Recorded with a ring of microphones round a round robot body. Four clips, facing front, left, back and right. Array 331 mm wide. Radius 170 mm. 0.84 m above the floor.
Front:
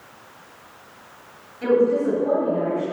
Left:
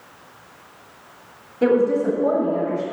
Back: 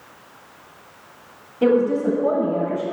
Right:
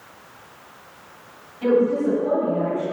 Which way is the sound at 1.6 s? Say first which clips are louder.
Left 1 dB, back 1 dB; 135° left.